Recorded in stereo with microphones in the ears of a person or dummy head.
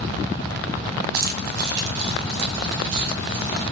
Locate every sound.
1.1 s keys jangling: 50° right (ahead or behind), 0.5 m; by 3.6 s 70° right (ahead or behind), 1.9 m